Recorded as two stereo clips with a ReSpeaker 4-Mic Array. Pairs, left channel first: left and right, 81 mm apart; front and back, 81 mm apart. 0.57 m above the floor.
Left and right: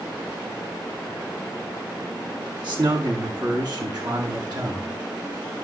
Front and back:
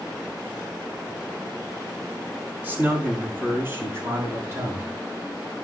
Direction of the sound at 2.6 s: 115° right.